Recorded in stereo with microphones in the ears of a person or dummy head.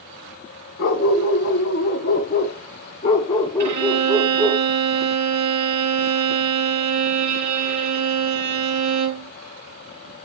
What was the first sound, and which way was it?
A dog barking, 65° left (ahead or behind).